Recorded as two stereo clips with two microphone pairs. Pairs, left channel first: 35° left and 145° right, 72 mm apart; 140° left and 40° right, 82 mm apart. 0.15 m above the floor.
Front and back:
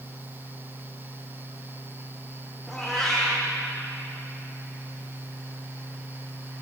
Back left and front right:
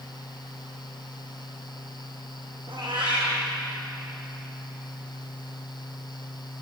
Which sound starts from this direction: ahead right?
A cat meowing, at 2.7 s.